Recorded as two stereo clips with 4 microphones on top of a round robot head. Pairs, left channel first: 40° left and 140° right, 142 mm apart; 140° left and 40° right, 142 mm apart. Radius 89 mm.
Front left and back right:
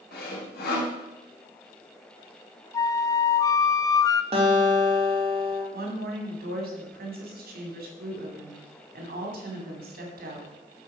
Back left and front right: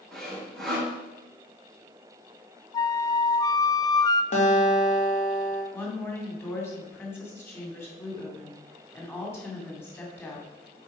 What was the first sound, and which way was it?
Sawing, 50° left.